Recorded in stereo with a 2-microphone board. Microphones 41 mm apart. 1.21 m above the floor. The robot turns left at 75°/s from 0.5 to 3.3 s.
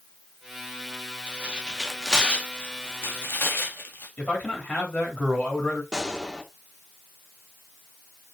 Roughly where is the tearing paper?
Right.